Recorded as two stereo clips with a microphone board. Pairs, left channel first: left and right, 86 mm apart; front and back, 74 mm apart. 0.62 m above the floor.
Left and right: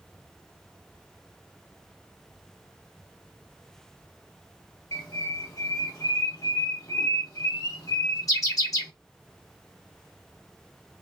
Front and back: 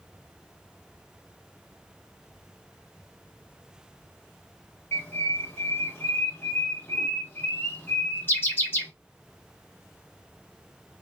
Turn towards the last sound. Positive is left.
turn(degrees=50)